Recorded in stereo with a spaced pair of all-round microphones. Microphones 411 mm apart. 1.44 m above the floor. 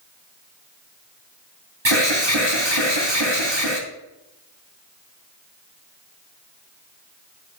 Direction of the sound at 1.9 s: 90° right.